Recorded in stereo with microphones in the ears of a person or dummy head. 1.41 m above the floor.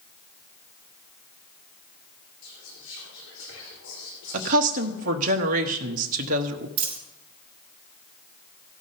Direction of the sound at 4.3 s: 45° right (ahead or behind).